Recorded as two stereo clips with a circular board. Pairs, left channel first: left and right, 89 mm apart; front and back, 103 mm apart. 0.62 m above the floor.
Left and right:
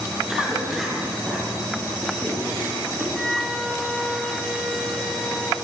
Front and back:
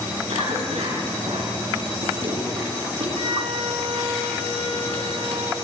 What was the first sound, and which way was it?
A cough, straight behind.